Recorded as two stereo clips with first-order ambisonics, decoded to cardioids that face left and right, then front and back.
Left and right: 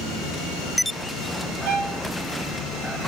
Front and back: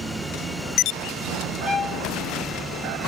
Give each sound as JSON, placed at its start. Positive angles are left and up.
{"t": 1.6, "sound": "a violin", "azimuth_deg": -75, "distance_m": 3.5}